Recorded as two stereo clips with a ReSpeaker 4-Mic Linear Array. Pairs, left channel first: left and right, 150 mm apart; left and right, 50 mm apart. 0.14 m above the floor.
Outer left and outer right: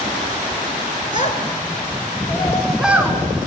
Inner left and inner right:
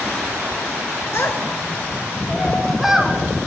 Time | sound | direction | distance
1.1 | a child speaking | 55° left (ahead or behind) | 1.4 m